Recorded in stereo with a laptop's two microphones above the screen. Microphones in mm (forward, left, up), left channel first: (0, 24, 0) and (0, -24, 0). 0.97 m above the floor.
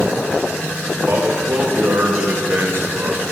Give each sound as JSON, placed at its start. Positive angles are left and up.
{"t": 1.0, "sound": "a man speaking", "side_deg": -50, "distance_m": 1.8}